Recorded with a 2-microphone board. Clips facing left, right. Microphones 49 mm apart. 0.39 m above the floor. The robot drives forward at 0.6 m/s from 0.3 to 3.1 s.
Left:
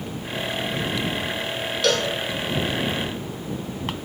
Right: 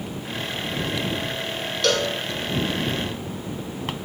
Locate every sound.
1.8 s a cowbell: centre (ahead or behind), 0.9 m